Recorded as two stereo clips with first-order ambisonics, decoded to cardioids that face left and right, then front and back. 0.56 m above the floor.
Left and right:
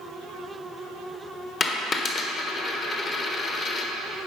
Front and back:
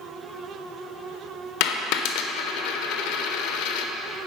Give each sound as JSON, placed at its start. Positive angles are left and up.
{"t": 1.6, "sound": "a dropped coin", "azimuth_deg": 20, "distance_m": 0.6}